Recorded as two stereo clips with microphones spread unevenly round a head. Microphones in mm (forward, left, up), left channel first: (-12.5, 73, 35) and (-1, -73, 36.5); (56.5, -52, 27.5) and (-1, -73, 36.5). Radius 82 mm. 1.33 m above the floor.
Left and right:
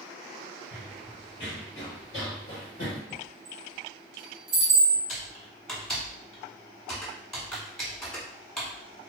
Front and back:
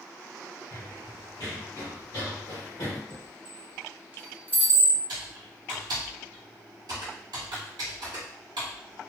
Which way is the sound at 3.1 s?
100° right.